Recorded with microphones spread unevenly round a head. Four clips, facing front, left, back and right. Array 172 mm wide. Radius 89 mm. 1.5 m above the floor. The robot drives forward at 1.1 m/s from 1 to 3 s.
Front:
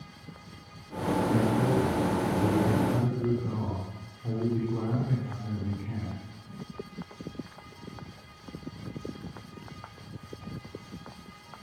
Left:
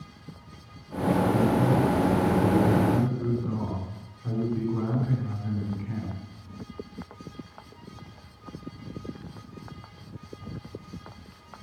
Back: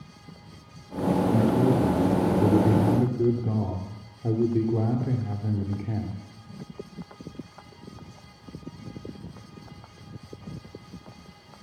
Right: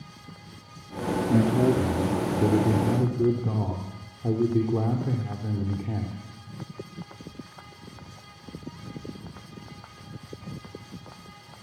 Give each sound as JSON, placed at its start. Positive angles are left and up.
{"t": 1.3, "sound": "a man speaking", "azimuth_deg": -105, "distance_m": 2.5}